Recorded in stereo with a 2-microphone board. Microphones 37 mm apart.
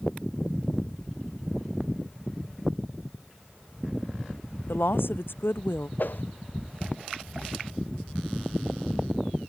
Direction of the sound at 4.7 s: 80° left.